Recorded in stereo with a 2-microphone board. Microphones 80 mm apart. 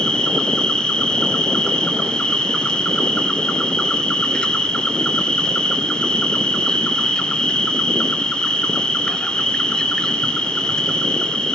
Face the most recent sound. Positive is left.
turn(degrees=10)  # may be behind; listen again after turning